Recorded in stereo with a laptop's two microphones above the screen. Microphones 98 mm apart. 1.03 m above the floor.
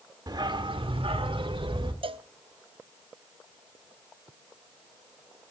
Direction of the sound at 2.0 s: 65° right (ahead or behind).